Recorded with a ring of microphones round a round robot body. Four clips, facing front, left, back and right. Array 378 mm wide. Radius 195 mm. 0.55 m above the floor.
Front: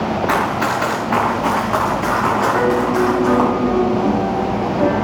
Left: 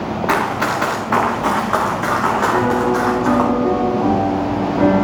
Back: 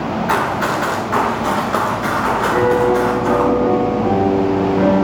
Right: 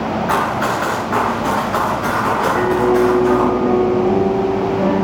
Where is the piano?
80° left, 6 m.